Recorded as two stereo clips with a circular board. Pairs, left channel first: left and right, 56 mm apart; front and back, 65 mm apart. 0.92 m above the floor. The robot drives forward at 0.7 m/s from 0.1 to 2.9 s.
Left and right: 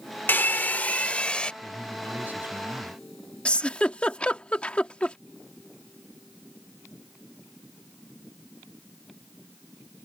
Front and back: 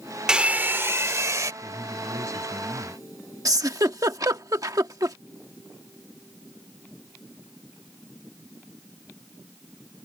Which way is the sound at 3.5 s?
155° left.